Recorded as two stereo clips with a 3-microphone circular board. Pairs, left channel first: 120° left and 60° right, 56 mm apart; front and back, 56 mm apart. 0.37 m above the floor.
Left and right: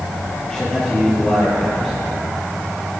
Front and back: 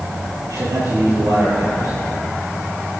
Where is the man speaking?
160° right, 7 m.